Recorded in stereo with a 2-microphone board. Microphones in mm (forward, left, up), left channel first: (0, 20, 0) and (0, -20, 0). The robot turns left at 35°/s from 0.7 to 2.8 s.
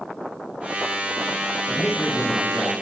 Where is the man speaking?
50° left, 8 m; by 2.7 s 15° left, 8 m.